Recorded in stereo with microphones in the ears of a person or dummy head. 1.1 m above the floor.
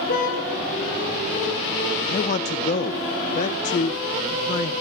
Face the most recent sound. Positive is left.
turn(degrees=40)  # may be behind; listen again after turning